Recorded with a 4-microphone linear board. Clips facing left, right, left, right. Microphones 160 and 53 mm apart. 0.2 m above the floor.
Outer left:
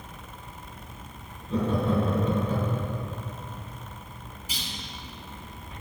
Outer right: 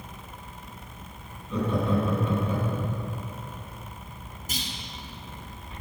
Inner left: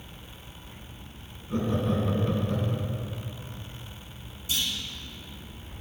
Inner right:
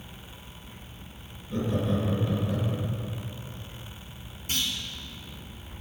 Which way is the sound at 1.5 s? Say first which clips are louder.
Outer left 1 dB, inner left 1 dB; 35° left (ahead or behind).